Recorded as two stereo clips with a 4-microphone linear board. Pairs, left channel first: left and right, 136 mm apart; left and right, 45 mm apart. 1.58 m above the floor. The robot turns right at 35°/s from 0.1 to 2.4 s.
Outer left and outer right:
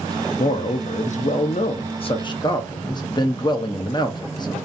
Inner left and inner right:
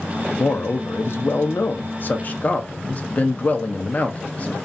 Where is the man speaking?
70° left, 0.5 m; by 4.6 s 140° left, 0.5 m.